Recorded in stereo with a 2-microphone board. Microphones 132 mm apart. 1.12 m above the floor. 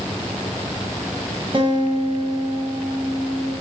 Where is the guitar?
40° right (ahead or behind), 2.0 m.